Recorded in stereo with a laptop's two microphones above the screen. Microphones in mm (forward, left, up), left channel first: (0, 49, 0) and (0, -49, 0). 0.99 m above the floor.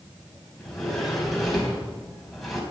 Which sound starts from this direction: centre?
A sliding door, at 0.6 s.